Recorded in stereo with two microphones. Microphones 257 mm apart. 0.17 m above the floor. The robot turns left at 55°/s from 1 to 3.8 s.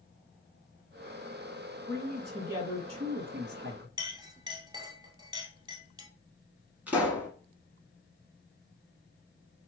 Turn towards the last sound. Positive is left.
turn(degrees=-5)  # may be behind; listen again after turning